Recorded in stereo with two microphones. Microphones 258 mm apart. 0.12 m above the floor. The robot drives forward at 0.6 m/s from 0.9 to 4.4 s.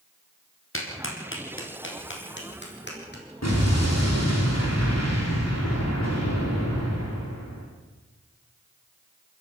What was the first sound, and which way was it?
A clap, 55° left (ahead or behind).